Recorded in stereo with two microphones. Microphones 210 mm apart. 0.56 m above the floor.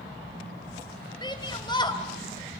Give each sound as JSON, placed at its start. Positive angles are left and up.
{"t": 1.2, "sound": "a shout", "side_deg": 20, "distance_m": 2.5}